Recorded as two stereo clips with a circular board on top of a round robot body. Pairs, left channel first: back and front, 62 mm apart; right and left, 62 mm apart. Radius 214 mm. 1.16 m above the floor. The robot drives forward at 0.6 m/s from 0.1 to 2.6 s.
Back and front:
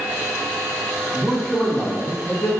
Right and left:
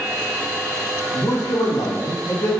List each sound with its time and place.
1.1 s a man speaking: 85° right, 1.0 m; by 2.5 s 130° right, 1.3 m